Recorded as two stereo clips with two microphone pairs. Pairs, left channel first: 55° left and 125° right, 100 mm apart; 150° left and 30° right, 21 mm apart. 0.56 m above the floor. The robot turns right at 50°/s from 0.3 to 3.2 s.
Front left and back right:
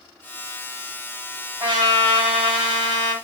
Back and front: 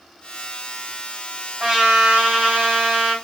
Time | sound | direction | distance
1.6 | a trumpet | 95° right | 2.5 m